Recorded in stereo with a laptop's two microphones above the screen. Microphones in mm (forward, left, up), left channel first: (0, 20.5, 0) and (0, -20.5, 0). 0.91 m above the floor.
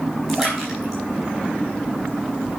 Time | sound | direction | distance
0.3 | a splash | centre (ahead or behind) | 5 m